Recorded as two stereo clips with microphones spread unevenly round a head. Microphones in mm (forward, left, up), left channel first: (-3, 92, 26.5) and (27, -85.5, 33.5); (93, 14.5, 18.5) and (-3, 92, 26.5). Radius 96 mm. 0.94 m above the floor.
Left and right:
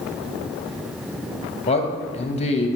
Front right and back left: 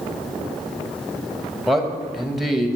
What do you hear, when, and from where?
1.7 s a man speaking: 50° left, 1.2 m